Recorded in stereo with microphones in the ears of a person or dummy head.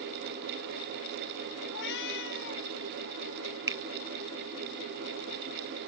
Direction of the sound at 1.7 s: 60° left (ahead or behind).